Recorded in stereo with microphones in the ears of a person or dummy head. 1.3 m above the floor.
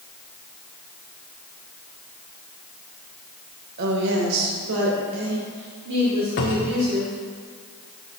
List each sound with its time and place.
3.8 s a woman speaking: 55° right (ahead or behind), 1.2 m; by 7.1 s 65° right (ahead or behind), 3 m
6.4 s a cupboard door: 40° left (ahead or behind), 0.7 m